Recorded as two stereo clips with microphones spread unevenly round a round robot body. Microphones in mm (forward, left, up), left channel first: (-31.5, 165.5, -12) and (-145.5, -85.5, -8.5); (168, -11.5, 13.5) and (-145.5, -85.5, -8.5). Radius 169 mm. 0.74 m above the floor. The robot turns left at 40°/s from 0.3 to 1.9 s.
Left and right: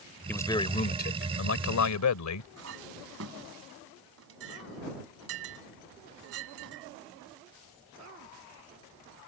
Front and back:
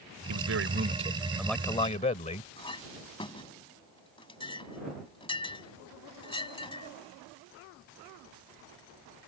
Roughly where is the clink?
Ahead right.